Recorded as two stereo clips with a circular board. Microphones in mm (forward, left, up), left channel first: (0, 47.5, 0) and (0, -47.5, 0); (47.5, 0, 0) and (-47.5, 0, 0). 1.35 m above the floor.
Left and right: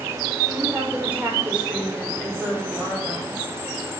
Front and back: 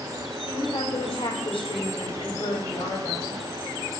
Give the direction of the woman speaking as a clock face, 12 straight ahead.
1 o'clock.